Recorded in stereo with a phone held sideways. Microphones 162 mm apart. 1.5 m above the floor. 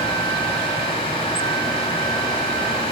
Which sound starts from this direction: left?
A fan, at 0.0 s.